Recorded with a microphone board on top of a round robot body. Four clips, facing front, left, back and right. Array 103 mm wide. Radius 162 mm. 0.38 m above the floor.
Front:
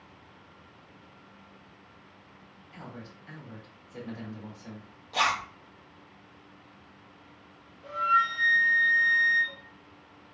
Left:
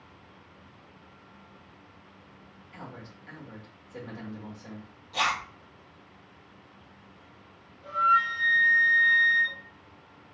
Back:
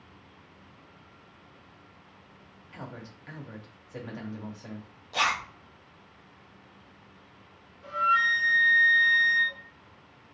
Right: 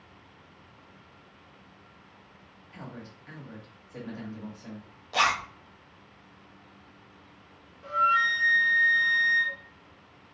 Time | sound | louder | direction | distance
2.7 | a man speaking | right 1 dB, back 2 dB | 175° right | 1.9 m
5.1 | a zipper | right 3 dB, front 1 dB | 95° right | 1.2 m
7.8 | a flute | left 1 dB, even | 115° right | 1.3 m